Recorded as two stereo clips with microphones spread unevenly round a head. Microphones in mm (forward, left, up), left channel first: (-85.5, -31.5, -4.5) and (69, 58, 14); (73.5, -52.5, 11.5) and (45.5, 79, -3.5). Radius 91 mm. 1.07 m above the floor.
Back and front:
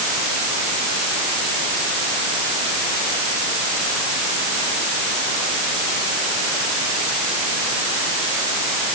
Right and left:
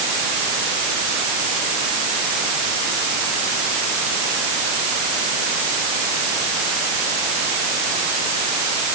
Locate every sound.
Only background noise.